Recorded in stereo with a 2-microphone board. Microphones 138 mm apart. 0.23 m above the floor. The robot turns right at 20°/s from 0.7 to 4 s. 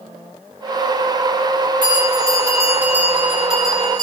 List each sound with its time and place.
1.8 s a bell: 35° right, 7 m; by 4.0 s 10° left, 7 m